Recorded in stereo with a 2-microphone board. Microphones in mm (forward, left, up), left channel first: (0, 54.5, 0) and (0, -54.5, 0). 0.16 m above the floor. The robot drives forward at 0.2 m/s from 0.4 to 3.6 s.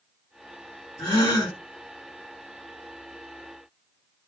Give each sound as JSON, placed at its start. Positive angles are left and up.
{"t": 1.0, "sound": "a gasp", "side_deg": 40, "distance_m": 2.0}